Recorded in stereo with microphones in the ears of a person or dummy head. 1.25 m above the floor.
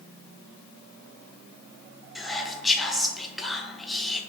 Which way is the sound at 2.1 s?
5° left (ahead or behind).